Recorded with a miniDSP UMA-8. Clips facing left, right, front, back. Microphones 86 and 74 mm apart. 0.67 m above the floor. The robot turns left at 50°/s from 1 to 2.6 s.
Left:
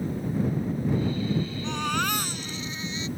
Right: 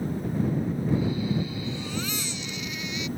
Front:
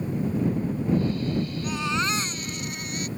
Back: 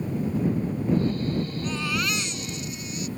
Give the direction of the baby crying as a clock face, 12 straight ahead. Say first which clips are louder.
Left 5 dB, front 1 dB; 9 o'clock.